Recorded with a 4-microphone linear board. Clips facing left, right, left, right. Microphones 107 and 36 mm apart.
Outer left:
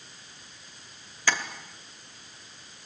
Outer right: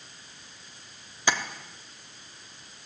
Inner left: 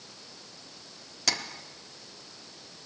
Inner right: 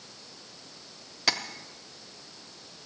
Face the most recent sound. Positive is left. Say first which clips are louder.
# outer right 1 dB, inner right 2 dB
turn(degrees=-20)  # may be behind; listen again after turning